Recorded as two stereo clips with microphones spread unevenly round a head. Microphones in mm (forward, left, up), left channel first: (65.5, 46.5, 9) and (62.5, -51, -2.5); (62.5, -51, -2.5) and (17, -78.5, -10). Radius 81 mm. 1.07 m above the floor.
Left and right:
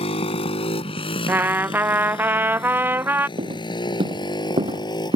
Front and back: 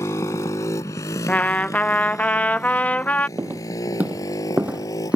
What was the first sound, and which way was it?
A motorcycle, 80° left.